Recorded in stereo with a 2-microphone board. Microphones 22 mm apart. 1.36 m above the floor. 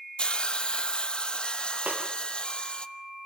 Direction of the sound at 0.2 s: 45° left (ahead or behind).